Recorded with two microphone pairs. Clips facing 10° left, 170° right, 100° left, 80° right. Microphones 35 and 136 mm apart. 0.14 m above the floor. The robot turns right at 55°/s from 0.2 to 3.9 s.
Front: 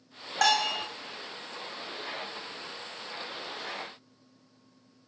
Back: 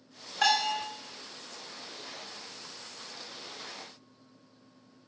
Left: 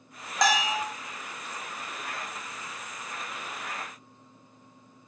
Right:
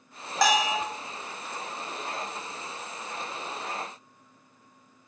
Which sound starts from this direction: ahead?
A bell, at 0.4 s.